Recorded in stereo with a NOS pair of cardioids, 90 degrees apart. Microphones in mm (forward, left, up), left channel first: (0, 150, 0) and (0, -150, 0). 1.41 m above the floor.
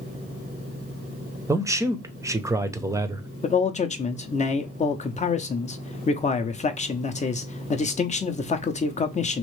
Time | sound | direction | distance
1.5 | a man speaking | 10° right | 0.7 m
3.4 | a man speaking | 25° left | 0.7 m